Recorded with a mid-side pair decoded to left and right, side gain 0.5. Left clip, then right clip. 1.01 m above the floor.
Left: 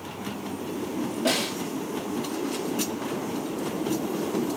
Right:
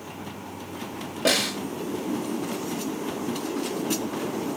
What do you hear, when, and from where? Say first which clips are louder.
1.2 s a snare drum: right 4 dB; 40° right, 2.5 m